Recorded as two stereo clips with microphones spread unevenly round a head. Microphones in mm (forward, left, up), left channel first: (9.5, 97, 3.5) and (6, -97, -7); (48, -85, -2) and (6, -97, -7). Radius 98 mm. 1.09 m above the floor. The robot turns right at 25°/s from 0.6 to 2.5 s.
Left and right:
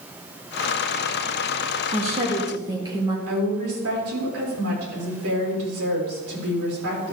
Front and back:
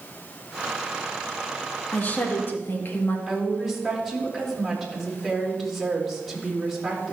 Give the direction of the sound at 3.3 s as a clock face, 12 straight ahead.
3 o'clock.